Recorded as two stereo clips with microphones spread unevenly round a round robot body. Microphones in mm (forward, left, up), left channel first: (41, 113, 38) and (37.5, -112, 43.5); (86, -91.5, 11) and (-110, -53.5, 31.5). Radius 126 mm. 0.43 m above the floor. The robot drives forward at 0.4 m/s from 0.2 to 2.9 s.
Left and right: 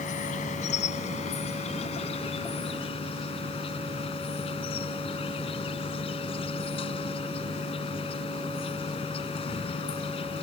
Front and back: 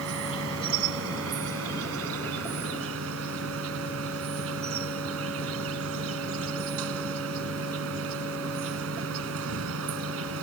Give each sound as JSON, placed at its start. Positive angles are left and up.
{"t": 0.0, "sound": "an insect", "azimuth_deg": 150}